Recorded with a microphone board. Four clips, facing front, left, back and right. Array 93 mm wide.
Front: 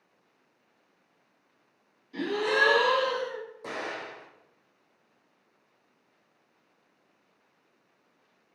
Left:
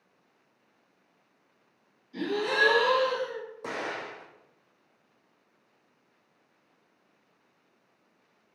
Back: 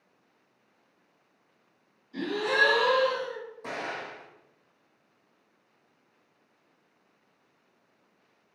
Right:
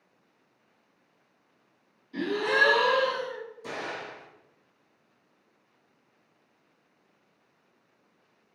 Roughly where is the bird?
No bird in this recording.